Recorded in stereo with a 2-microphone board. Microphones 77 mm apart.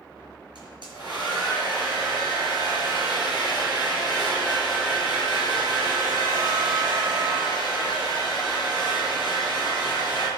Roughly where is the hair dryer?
Right.